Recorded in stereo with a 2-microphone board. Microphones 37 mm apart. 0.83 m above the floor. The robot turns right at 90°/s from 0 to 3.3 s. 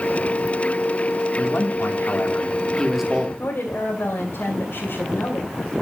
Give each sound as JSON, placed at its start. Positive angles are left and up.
{"t": 1.4, "sound": "a man speaking", "azimuth_deg": 40, "distance_m": 2.5}
{"t": 3.4, "sound": "a woman speaking", "side_deg": 65, "distance_m": 3.0}